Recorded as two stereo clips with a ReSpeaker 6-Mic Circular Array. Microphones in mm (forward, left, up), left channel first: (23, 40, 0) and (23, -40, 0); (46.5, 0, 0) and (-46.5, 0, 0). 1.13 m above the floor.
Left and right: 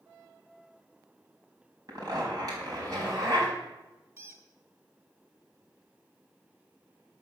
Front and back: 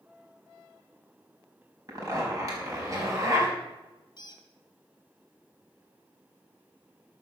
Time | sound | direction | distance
1.9 | a zipper | 130° right | 4.5 m
4.2 | a squeak | 40° right | 2.5 m